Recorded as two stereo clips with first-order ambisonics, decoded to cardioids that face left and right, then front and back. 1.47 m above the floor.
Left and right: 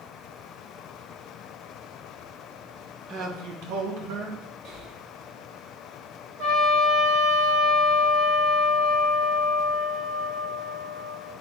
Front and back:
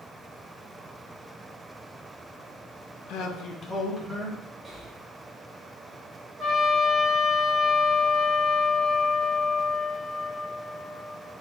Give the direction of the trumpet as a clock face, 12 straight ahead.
4 o'clock.